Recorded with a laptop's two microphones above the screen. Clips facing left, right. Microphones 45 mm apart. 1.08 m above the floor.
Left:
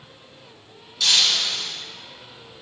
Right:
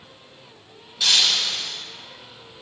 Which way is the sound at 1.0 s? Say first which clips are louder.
Even; 15° right (ahead or behind).